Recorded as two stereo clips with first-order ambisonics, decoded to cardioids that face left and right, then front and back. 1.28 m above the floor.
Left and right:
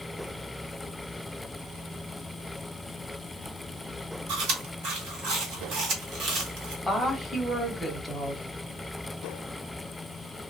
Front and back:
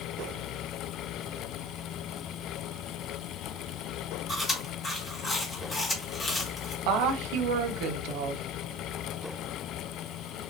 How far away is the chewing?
About 1.6 m.